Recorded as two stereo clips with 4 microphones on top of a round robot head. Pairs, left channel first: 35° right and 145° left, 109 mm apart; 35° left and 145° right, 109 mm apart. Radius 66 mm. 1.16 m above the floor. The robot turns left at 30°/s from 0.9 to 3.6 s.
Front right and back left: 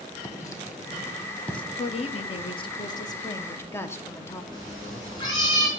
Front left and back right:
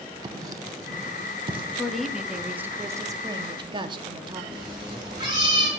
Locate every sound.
0.2 s writing: 95° right, 0.8 m; by 1.6 s 120° right, 0.8 m
1.8 s a woman speaking: 45° right, 0.7 m; by 4.4 s 105° right, 0.7 m
4.5 s a cat meowing: 90° right, 2.5 m